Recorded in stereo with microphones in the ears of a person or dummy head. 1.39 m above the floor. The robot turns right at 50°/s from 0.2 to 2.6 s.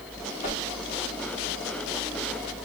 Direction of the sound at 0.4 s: 30° left (ahead or behind).